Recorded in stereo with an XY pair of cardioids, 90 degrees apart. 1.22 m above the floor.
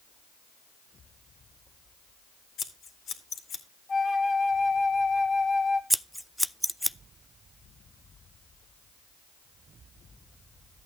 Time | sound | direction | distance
2.6 | scissors | 65° left | 2.5 m
3.9 | a flute | 40° left | 2.5 m
5.9 | scissors | straight ahead | 0.5 m